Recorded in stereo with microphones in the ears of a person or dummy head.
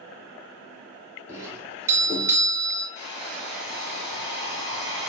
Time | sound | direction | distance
1.3 | a doorbell | 15° right (ahead or behind) | 0.6 m
3.0 | a hair dryer | 35° left (ahead or behind) | 1.9 m